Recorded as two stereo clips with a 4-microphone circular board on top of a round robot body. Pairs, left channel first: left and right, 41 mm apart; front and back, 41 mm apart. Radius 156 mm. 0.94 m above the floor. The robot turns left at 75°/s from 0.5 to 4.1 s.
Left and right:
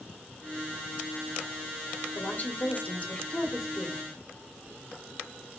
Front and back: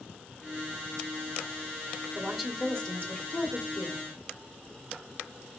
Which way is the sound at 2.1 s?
115° left.